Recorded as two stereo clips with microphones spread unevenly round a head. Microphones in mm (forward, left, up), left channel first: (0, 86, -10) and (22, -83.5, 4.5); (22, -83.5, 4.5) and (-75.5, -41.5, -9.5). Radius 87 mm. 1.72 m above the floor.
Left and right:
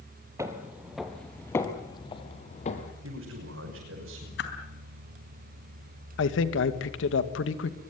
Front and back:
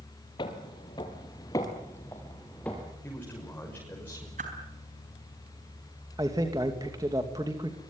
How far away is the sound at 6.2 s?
About 2 m.